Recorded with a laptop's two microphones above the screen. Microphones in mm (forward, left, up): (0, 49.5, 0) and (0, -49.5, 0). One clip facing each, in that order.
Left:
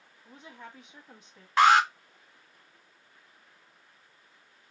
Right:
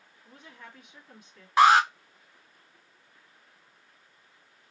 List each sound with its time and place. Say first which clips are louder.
0.2 s a woman speaking: left 2 dB; 25° left (ahead or behind), 1.7 m
1.6 s an alarm: right 2 dB; 10° right (ahead or behind), 0.8 m